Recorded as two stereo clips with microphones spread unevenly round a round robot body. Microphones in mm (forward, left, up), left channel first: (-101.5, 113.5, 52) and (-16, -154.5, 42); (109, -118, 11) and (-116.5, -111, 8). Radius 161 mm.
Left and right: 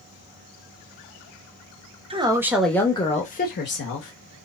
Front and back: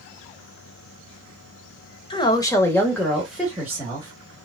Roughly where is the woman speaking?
Ahead right.